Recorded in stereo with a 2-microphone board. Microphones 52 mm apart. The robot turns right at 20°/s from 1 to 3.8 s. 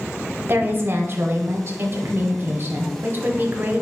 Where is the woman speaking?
110° right, 1.3 m; by 3.8 s 50° right, 1.3 m.